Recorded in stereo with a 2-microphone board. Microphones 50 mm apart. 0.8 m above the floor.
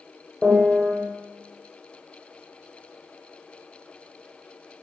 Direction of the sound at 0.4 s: 5° right (ahead or behind).